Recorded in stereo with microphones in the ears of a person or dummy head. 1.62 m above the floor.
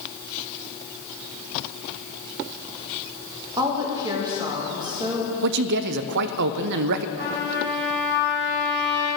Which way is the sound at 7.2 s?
55° right (ahead or behind).